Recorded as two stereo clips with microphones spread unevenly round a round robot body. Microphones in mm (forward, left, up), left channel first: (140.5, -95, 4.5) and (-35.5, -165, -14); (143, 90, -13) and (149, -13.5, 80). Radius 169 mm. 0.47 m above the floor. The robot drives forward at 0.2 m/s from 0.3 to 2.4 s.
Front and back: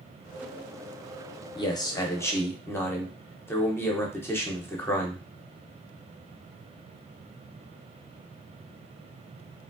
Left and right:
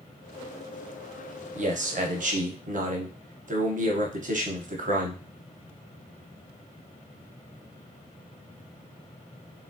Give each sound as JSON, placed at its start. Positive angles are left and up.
{"t": 1.6, "sound": "a man speaking", "azimuth_deg": -35, "distance_m": 0.8}